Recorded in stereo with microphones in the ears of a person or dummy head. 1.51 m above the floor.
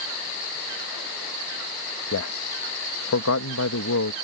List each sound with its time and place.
2.1 s a man speaking: 75° left (ahead or behind)